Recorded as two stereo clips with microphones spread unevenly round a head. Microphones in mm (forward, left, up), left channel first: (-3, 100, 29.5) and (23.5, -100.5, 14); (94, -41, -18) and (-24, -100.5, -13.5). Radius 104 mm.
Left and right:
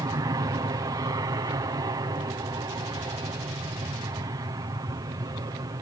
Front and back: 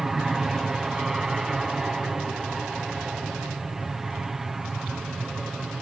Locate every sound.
0.0 s an aircraft: 70° right